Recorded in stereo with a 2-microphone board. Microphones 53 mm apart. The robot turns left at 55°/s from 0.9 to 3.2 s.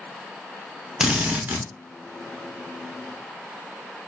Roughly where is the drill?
Ahead.